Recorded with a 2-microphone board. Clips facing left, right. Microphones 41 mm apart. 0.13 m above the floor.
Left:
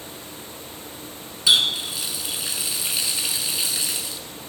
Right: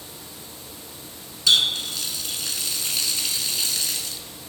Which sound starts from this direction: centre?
A running tap, at 1.5 s.